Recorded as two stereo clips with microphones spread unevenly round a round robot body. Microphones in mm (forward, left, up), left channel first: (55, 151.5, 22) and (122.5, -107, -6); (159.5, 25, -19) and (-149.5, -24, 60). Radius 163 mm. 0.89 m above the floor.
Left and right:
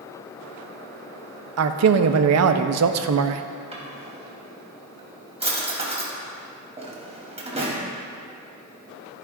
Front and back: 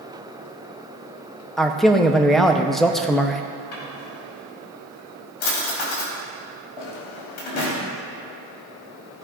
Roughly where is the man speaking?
Right.